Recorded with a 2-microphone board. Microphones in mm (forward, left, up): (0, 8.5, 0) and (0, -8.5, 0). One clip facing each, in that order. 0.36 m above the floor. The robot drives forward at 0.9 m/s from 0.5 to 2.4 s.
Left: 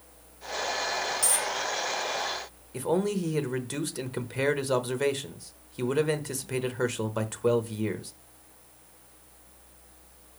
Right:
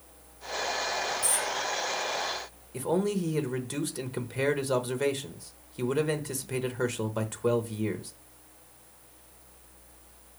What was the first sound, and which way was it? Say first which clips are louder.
A dropped coin: left 1 dB; 85° left.